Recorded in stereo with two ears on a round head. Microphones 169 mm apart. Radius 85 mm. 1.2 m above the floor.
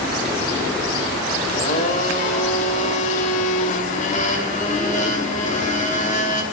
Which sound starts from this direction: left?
A blender, at 1.5 s.